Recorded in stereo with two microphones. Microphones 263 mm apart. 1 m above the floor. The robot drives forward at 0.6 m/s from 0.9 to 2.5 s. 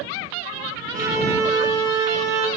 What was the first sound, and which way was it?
A violin, 15° right (ahead or behind).